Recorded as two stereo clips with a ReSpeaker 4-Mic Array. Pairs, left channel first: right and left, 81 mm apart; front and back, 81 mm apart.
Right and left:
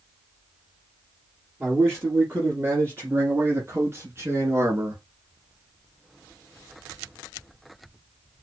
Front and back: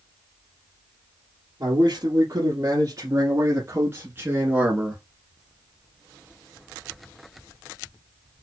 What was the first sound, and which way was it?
A man speaking, 150° left.